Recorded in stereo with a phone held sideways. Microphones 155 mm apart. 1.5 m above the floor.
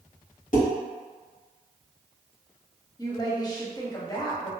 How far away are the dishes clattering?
About 1.3 m.